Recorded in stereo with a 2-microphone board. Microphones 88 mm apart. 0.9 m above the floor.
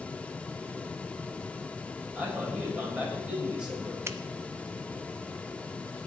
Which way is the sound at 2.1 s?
10° right (ahead or behind).